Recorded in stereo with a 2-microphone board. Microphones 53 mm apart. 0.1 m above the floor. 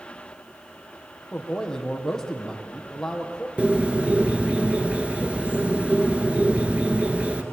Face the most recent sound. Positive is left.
turn(degrees=-25)  # may be behind; listen again after turning